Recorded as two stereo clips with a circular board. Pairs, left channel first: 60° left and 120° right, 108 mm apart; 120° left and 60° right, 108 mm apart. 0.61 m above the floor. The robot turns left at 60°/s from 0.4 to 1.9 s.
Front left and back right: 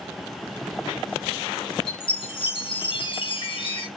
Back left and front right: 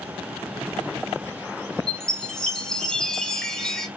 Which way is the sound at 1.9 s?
40° left.